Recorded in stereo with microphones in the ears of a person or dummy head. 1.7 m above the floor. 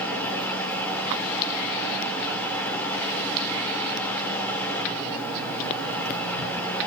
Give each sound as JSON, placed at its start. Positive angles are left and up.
{"t": 0.0, "sound": "a fan", "side_deg": 5, "distance_m": 4.0}